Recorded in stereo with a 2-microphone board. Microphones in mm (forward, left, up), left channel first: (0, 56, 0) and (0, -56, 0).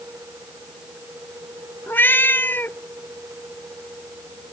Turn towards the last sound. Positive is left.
turn(degrees=20)  # may be behind; listen again after turning